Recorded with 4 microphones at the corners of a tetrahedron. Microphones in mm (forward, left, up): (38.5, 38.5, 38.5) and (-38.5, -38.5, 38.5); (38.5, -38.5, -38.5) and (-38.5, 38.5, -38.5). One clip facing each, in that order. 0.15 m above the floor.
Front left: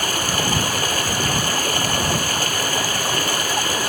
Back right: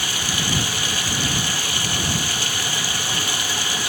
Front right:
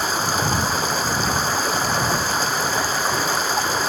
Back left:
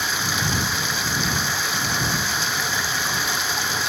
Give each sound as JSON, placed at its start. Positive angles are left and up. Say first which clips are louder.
{"t": 0.0, "sound": "running water", "louder": "front left 5 dB, front right 4 dB", "azimuth_deg": 5}